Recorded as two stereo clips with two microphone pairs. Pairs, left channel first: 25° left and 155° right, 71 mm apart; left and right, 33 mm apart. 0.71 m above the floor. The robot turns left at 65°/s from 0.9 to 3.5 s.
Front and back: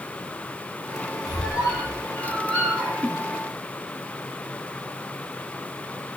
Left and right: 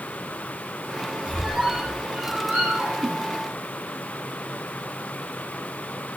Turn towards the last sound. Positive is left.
turn(degrees=-110)